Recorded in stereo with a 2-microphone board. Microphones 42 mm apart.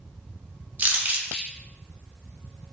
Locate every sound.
0.8 s crumpling: 40° right (ahead or behind), 0.7 m